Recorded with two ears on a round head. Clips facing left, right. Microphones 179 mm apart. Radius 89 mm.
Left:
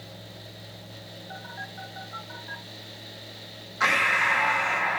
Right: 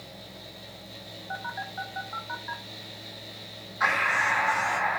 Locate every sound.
1.3 s a phone buzzing: 65° right (ahead or behind), 4.5 m
3.8 s breathing: 45° left (ahead or behind), 1.5 m